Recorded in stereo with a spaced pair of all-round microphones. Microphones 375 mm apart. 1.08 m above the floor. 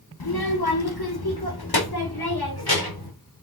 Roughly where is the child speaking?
Left.